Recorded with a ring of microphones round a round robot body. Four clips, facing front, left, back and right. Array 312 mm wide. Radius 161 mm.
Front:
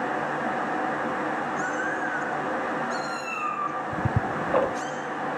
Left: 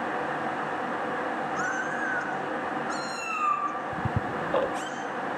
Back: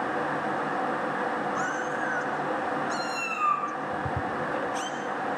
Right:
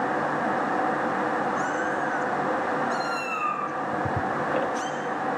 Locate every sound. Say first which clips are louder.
1.6 s a cat meowing: right 3 dB, front 1 dB; 140° left, 10 m; by 4.9 s 130° left, 5 m
3.9 s ticking: right 4 dB, front 2 dB; 20° left, 0.5 m